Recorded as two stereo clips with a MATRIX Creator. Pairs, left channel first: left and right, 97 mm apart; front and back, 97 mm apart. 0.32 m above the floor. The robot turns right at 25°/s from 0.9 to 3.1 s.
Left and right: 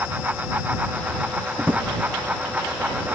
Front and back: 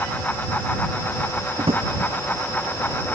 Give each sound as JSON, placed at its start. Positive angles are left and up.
{"t": 1.6, "sound": "a drawer", "azimuth_deg": -165}